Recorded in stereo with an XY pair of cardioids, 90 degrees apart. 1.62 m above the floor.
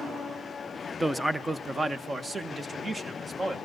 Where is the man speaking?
5° right, 1.0 m; by 3.5 s 30° right, 3 m.